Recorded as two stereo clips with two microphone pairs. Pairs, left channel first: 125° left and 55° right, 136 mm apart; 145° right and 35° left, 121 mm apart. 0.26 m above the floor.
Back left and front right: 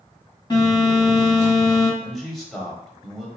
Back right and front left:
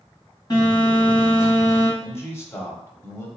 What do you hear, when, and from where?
0.5 s a phone buzzing: 175° left, 2.0 m
2.0 s a man speaking: 145° right, 1.0 m